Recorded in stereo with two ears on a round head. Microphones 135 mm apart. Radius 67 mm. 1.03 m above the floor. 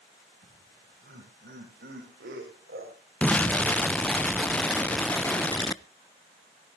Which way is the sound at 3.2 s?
10° left (ahead or behind).